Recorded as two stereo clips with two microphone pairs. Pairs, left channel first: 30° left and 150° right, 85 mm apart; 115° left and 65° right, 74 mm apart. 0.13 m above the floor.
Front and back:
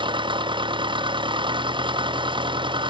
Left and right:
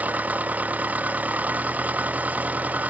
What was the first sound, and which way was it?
An engine running, 130° right.